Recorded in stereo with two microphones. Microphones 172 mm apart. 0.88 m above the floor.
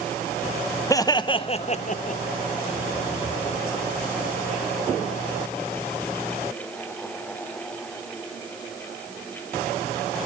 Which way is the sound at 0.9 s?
20° left (ahead or behind).